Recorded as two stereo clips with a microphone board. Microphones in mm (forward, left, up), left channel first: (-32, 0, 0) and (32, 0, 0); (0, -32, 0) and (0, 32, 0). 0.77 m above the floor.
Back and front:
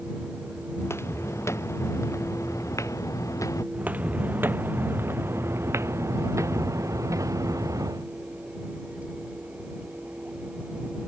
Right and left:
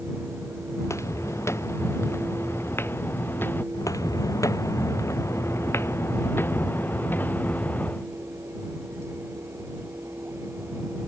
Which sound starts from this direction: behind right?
Footsteps, at 0.8 s.